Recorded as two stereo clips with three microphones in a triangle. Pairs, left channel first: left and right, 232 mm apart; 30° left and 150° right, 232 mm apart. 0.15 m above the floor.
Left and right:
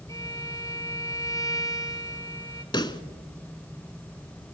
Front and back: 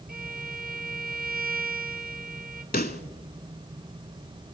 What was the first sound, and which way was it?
A violin, 165° left.